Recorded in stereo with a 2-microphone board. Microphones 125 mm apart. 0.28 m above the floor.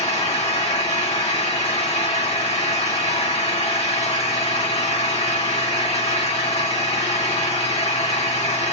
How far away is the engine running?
About 2.5 m.